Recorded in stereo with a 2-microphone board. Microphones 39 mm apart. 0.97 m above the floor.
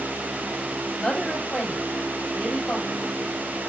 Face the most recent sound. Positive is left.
turn(degrees=25)  # may be behind; listen again after turning